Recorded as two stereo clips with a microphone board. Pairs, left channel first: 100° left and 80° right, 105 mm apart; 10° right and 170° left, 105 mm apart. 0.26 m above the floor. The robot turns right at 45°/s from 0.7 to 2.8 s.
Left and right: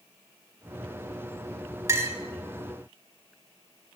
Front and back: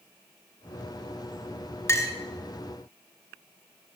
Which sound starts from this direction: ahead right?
A clink, at 1.9 s.